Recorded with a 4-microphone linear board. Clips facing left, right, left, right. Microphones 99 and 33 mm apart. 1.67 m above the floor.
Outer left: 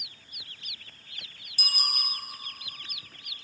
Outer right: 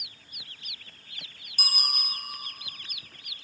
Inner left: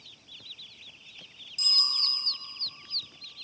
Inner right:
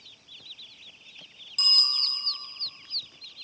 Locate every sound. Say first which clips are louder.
1.6 s a bicycle bell: outer right 1 dB, inner right 3 dB; 55° right (ahead or behind), 4 m